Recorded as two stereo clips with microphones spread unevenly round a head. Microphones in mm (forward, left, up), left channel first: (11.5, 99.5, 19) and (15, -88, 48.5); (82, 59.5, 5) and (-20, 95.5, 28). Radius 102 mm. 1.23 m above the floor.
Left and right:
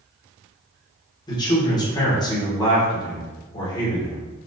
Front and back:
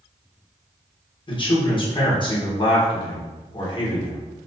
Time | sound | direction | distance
1.3 | a man speaking | 20° left | 3.5 m